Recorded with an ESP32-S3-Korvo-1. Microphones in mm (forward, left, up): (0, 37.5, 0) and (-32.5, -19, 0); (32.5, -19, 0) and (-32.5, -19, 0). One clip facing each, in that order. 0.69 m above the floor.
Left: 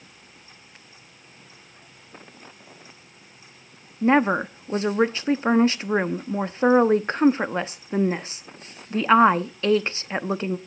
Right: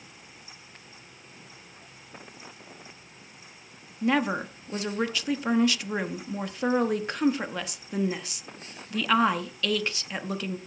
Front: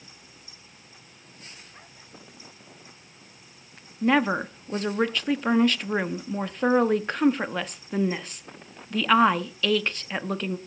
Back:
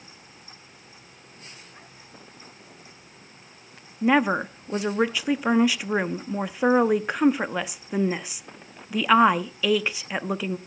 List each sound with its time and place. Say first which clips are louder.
4.0 s a woman speaking: left 6 dB, back 1 dB; 105° left, 0.8 m